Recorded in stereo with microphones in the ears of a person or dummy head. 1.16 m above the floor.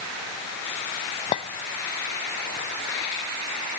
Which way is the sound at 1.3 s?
35° left (ahead or behind).